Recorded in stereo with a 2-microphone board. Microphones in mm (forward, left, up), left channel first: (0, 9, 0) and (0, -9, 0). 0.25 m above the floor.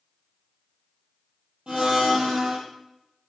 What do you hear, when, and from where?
1.7 s a blender: 50° right (ahead or behind), 3.5 m